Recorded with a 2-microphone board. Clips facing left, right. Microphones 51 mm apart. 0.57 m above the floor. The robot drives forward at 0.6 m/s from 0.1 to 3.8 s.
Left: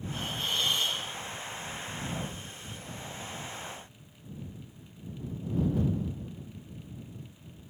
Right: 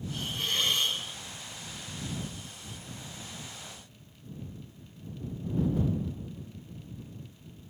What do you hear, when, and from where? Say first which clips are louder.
0.1 s a hiss: even; 65° right (ahead or behind), 8 m; by 1.0 s 60° right (ahead or behind), 8.5 m